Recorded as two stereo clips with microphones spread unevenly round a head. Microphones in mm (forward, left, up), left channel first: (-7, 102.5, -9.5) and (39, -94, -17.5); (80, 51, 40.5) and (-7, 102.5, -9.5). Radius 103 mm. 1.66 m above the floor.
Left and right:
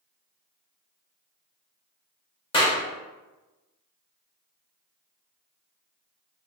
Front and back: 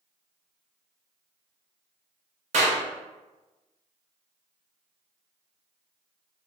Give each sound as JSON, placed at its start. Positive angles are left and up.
{"t": 2.5, "sound": "a clap", "azimuth_deg": 155, "distance_m": 0.8}